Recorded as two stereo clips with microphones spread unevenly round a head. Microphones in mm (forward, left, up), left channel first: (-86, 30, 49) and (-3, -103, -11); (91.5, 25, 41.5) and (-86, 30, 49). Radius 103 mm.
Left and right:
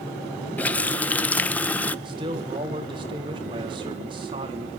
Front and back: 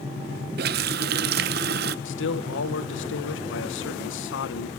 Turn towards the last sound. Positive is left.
turn(degrees=5)